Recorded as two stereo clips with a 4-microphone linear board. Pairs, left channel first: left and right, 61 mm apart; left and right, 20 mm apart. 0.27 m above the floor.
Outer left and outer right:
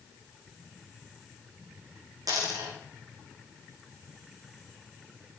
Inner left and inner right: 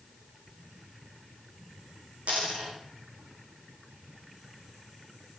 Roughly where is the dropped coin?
Right.